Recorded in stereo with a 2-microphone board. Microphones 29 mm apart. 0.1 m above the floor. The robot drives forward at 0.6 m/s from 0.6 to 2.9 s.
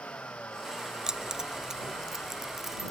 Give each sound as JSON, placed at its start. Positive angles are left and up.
{"t": 0.0, "sound": "a vehicle", "side_deg": 60}
{"t": 1.1, "sound": "keys jangling", "side_deg": -25}